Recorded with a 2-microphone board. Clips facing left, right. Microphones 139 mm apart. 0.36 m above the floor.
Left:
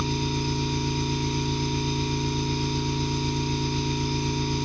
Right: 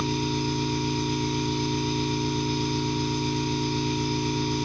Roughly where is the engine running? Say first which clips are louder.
Right 1 dB; right.